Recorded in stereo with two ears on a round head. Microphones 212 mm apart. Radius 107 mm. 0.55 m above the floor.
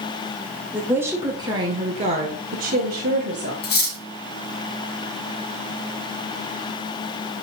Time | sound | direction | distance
0.7 | a woman speaking | 5° right (ahead or behind) | 2 m
3.6 | cutlery clinking | 45° left (ahead or behind) | 2.5 m